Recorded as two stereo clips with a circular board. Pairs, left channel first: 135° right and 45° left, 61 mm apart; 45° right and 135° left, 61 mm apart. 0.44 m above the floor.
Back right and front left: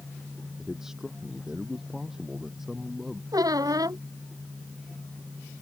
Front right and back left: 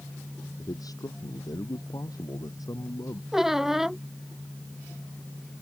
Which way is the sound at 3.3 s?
50° left.